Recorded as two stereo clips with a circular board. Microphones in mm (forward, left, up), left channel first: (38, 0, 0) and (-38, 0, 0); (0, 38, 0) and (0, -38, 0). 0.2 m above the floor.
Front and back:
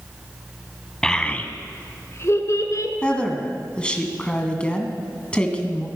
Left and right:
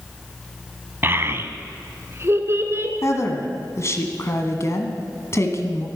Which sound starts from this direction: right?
A child speaking, at 1.0 s.